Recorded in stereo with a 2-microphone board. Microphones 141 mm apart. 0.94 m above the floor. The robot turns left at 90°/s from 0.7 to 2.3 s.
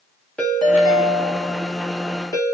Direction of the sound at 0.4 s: 170° left.